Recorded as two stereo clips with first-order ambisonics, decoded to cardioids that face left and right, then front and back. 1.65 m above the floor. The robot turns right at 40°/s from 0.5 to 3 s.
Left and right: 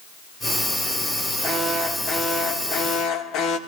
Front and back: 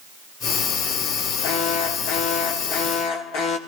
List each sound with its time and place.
1.4 s an alarm: 25° right, 2.5 m; by 3.6 s 40° left, 2.5 m